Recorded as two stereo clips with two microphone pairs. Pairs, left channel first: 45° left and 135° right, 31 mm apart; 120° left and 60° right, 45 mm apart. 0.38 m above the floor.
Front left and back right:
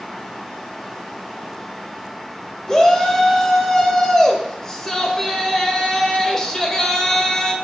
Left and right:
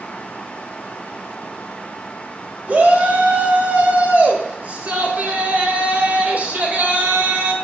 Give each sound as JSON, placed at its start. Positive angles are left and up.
{"t": 2.7, "sound": "a shout", "azimuth_deg": -25, "distance_m": 1.6}